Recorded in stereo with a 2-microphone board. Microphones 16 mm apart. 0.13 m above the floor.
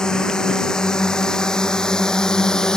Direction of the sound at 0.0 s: 65° left (ahead or behind).